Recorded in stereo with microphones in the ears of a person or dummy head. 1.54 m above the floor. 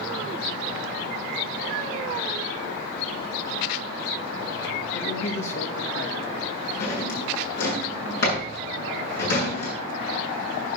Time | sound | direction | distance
4.9 | a man speaking | 75° left (ahead or behind) | 2.5 m
6.8 | a drawer | 60° left (ahead or behind) | 7.5 m